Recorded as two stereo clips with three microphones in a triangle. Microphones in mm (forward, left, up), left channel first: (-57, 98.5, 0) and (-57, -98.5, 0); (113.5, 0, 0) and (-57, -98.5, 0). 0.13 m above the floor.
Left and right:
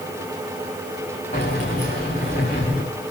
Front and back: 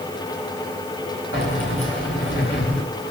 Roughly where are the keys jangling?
Ahead left.